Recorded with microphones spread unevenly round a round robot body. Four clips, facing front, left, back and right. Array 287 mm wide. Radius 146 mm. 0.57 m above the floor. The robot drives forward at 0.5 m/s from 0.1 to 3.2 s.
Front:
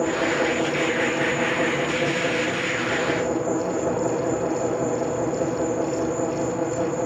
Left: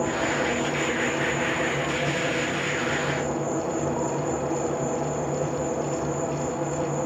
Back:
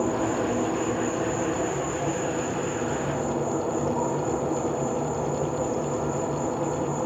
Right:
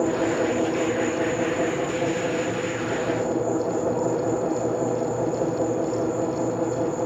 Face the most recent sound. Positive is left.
turn(degrees=-150)